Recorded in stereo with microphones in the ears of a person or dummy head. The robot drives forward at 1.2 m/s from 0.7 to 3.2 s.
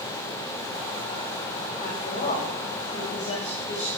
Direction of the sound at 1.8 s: 45° left (ahead or behind).